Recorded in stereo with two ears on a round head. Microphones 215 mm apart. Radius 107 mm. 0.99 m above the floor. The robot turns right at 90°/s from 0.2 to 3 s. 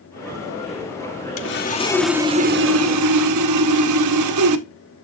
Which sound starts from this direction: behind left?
Sawing, at 1.4 s.